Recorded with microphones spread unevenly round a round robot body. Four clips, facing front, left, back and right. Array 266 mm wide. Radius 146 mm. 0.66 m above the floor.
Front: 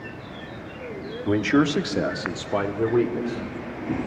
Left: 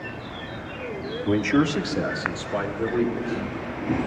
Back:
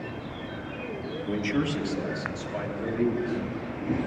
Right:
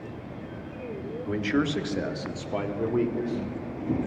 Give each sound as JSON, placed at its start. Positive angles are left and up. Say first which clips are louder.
{"t": 1.2, "sound": "a man speaking", "louder": "left 5 dB, front 8 dB", "azimuth_deg": 45, "distance_m": 1.0}